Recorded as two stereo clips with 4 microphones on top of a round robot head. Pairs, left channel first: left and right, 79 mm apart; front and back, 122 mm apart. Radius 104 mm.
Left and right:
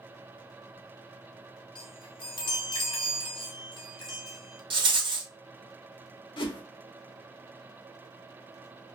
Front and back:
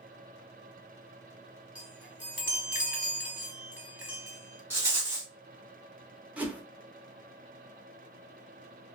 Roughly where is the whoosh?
Left.